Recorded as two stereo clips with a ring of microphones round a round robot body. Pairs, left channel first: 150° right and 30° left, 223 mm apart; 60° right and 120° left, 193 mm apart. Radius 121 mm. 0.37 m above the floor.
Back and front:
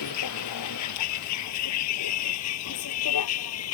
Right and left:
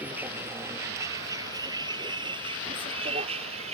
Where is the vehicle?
155° right; by 3.7 s 175° right.